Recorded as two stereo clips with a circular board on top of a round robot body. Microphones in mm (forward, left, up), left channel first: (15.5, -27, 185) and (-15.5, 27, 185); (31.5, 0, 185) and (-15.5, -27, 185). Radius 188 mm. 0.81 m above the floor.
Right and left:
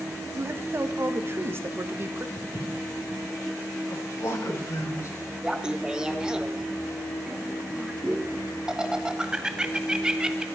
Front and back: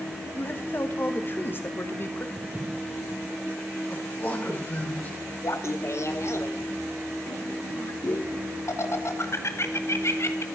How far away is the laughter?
About 1.5 m.